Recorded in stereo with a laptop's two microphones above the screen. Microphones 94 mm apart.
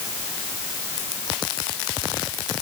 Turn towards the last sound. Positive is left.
No sound to turn to.